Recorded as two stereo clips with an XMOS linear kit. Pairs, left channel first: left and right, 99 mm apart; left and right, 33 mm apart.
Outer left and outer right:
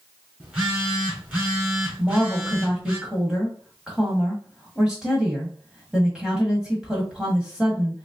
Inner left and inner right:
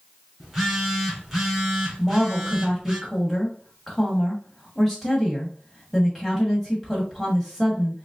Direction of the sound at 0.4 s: 15° right (ahead or behind).